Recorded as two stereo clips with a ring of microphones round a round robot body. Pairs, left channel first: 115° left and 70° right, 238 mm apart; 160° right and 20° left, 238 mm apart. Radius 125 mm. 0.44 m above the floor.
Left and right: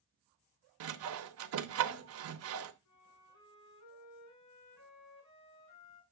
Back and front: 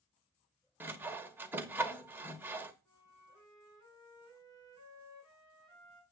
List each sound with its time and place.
0.8 s sawing: 60° right, 1.0 m
2.9 s a flute: 130° left, 4 m